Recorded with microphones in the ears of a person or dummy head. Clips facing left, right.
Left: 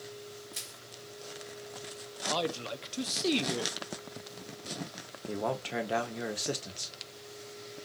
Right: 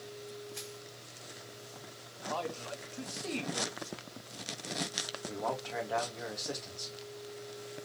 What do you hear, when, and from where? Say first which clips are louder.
0.5 s crushing: right 5 dB; 60° left (ahead or behind), 2.5 m
2.3 s a man speaking: left 4 dB; 50° left (ahead or behind), 0.7 m
5.3 s a man speaking: left 4 dB; 40° left (ahead or behind), 1.2 m